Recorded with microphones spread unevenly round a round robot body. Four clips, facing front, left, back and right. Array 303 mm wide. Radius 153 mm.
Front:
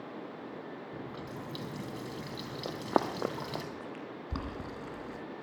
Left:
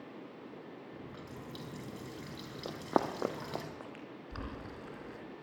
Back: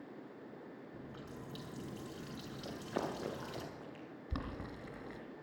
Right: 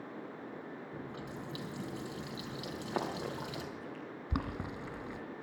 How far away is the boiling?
About 3 m.